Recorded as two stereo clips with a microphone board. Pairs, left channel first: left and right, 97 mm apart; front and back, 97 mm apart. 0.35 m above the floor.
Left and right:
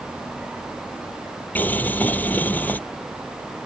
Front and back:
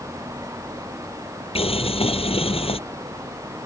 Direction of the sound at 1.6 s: 15° left.